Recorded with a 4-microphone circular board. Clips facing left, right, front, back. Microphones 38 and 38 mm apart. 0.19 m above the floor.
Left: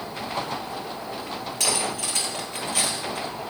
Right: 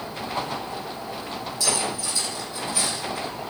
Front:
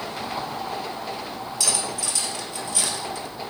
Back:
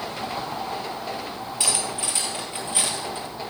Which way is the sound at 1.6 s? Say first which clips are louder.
Even, back 1 dB; 115° left.